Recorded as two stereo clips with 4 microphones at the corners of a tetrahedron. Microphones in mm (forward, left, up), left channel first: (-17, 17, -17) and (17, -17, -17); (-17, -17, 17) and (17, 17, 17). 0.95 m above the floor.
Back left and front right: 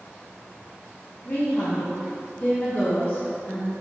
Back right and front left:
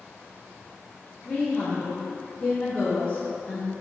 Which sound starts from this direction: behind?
A woman speaking, at 1.2 s.